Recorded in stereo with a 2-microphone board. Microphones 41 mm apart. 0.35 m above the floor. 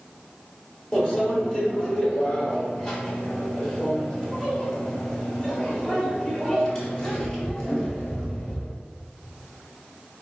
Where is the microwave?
15° left (ahead or behind), 0.8 m.